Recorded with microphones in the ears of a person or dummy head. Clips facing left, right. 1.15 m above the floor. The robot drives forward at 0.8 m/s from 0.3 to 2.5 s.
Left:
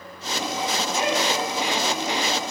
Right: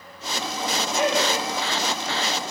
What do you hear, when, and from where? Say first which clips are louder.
0.9 s laughter: right 3 dB; 60° right (ahead or behind), 3.5 m; by 1.5 s 55° right (ahead or behind), 3.5 m